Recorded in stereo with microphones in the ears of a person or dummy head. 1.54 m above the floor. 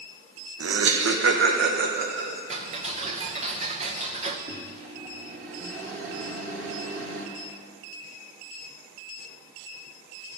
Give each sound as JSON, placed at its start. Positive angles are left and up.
{"t": 0.6, "sound": "laughter", "side_deg": -85, "distance_m": 1.2}
{"t": 2.5, "sound": "ticking", "side_deg": -35, "distance_m": 0.8}
{"t": 4.5, "sound": "a microwave", "side_deg": -85, "distance_m": 2.0}